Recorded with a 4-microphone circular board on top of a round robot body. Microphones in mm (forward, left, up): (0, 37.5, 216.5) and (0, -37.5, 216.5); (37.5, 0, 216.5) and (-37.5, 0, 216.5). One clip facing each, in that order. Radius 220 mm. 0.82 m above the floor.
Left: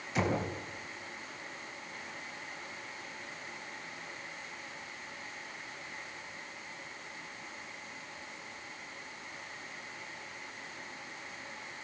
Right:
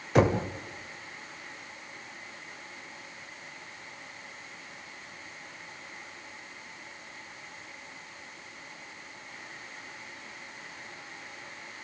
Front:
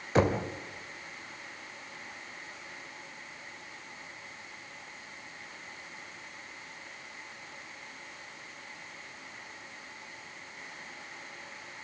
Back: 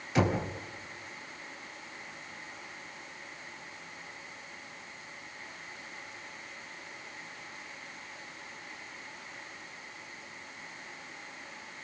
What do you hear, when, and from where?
0.1 s knocking: 55° right, 2.5 m